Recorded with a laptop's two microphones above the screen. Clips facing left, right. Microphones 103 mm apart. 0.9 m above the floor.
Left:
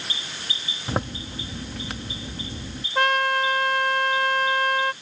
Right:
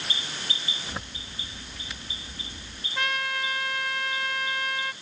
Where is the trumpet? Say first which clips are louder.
Left 9 dB; 55° left (ahead or behind).